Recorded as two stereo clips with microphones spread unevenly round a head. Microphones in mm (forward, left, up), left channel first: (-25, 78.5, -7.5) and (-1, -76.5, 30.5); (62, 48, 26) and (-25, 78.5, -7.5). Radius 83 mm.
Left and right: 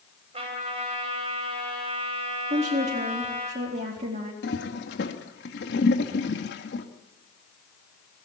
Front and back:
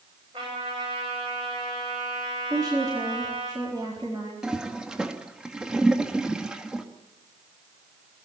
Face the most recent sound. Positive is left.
turn(degrees=70)